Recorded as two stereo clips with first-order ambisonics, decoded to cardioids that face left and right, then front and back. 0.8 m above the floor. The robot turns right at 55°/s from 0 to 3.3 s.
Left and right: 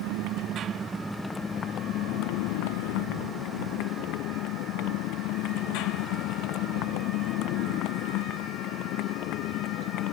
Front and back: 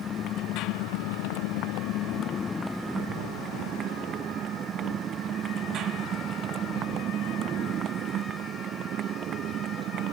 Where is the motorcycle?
65° right; by 10.1 s 130° left.